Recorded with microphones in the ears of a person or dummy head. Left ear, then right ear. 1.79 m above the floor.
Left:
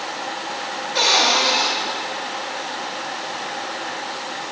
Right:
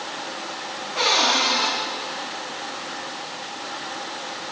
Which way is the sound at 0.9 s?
75° left (ahead or behind).